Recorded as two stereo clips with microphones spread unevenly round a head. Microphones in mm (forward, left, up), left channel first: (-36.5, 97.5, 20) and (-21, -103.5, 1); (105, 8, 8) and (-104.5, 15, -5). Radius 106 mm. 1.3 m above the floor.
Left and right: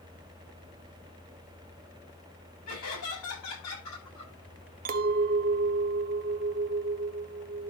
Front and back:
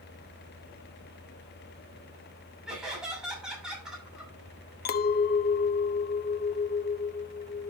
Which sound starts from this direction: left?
Laughter, at 2.7 s.